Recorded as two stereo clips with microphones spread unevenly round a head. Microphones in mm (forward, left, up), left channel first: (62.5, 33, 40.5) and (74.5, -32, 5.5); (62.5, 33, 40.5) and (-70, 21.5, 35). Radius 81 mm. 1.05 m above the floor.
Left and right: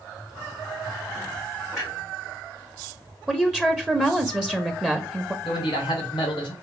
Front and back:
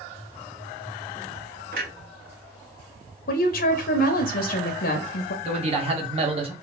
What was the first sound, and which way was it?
A clunk, straight behind.